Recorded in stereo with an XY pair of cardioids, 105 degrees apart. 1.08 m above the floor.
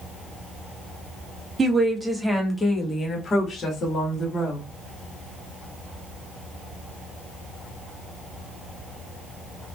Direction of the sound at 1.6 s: 25° right.